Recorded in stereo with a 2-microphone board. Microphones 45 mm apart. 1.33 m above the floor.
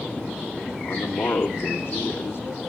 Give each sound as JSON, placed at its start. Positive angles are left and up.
{"t": 0.8, "sound": "a man speaking", "side_deg": 65, "distance_m": 2.5}